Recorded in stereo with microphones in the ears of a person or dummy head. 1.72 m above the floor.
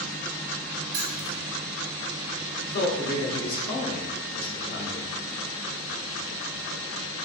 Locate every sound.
0.9 s keys jangling: 60° right (ahead or behind), 2.0 m
2.6 s a man speaking: 45° left (ahead or behind), 0.8 m